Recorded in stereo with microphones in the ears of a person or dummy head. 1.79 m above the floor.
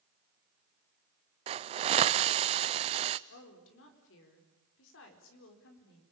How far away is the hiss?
About 0.7 m.